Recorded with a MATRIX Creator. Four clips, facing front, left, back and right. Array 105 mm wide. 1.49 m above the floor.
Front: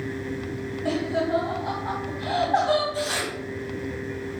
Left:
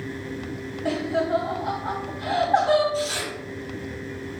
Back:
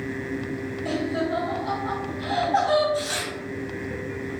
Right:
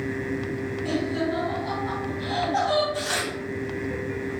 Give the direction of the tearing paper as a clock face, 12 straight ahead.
2 o'clock.